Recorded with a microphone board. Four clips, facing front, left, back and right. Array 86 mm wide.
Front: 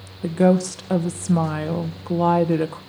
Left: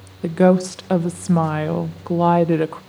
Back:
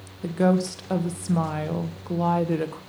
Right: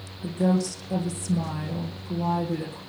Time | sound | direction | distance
0.2 | a woman speaking | 80° left | 1.4 m